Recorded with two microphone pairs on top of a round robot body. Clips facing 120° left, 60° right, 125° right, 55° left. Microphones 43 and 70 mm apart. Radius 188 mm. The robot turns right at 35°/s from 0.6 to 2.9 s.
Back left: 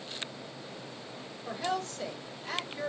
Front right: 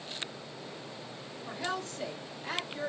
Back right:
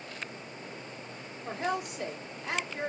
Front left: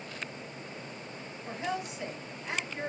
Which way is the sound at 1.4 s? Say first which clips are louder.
Back left 3 dB, back right 3 dB; 150° right.